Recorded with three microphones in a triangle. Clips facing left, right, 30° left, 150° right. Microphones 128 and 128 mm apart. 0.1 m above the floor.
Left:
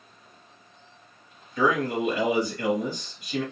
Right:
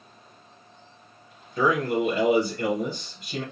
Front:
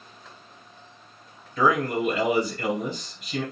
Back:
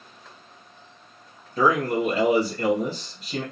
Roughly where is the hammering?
No hammering in this recording.